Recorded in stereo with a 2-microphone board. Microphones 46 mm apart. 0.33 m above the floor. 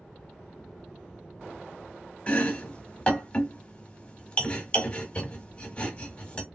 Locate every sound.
2.3 s chopping: 25° left (ahead or behind), 0.8 m